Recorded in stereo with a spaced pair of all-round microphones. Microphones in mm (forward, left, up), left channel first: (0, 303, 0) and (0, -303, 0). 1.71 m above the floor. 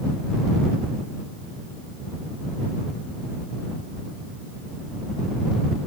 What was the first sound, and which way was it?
Only background noise.